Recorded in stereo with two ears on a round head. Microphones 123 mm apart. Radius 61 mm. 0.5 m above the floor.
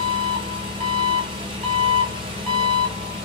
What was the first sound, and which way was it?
An engine running, 40° right (ahead or behind).